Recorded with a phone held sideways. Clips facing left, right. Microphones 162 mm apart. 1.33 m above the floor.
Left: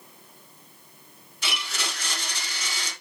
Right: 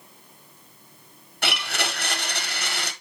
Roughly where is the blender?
Right.